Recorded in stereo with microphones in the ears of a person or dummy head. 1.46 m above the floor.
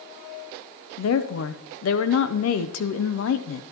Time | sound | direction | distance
1.0 | a woman speaking | 65° left (ahead or behind) | 0.7 m